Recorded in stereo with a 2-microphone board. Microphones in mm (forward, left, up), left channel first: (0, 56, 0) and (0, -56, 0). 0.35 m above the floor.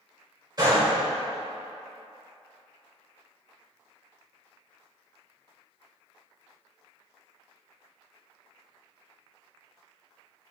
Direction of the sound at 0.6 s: 40° right (ahead or behind).